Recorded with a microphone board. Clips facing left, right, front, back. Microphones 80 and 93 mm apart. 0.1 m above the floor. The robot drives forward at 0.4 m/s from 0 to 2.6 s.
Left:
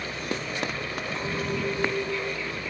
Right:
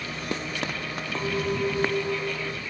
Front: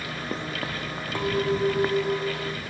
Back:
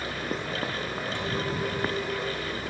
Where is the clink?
40° right, 1.9 m; by 2.6 s 60° right, 1.6 m.